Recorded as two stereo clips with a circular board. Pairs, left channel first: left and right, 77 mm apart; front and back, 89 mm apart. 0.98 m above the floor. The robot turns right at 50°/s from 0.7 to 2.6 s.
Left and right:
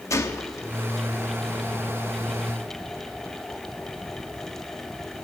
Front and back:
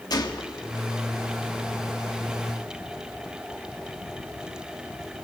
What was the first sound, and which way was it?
A gunshot, 45° left.